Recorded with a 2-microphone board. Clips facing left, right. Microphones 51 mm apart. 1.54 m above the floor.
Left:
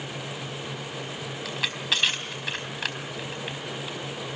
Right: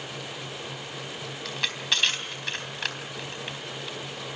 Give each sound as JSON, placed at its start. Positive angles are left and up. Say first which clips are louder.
{"t": 1.4, "sound": "crushing", "louder": "even", "side_deg": 5, "distance_m": 3.5}